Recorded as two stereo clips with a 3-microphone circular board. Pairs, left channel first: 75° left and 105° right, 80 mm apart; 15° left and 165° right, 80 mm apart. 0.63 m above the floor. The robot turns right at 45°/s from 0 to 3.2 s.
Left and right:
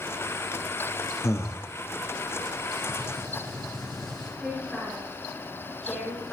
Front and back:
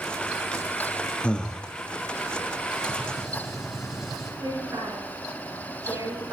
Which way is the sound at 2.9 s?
95° right.